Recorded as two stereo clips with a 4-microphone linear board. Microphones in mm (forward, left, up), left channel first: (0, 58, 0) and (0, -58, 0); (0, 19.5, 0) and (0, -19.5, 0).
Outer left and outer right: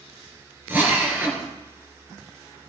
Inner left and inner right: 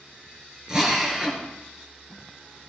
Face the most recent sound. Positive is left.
turn(degrees=-20)  # may be behind; listen again after turning